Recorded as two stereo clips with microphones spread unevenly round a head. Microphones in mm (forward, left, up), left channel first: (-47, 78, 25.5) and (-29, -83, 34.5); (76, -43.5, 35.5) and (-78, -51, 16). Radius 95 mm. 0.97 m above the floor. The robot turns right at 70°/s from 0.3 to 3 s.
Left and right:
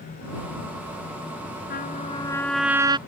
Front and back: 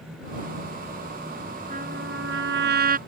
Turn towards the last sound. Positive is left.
turn(degrees=-145)